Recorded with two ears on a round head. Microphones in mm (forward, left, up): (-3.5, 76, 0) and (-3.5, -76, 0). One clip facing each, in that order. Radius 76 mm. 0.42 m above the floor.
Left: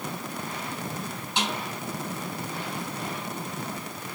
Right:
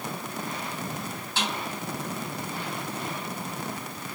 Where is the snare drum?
15° left (ahead or behind), 3 m.